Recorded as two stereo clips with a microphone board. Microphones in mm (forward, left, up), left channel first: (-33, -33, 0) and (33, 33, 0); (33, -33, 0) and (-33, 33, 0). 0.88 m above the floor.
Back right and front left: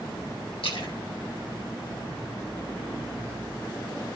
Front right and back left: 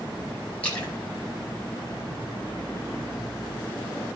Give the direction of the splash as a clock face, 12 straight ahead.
4 o'clock.